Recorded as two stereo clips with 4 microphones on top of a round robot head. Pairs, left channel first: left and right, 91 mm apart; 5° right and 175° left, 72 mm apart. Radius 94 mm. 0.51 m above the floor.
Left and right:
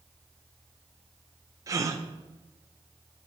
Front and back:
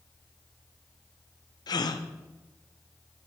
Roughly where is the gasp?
Ahead right.